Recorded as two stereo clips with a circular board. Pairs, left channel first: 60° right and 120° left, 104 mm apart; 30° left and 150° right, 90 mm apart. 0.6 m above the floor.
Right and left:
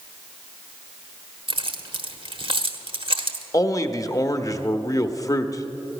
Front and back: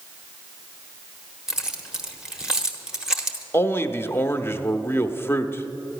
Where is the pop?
I don't hear a pop.